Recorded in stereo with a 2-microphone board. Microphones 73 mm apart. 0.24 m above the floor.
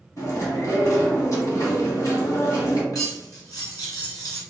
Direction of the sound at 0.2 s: 50° left (ahead or behind).